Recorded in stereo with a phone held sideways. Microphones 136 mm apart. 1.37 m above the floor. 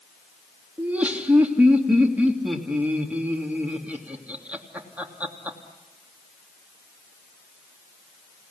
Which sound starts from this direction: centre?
Laughter, at 0.8 s.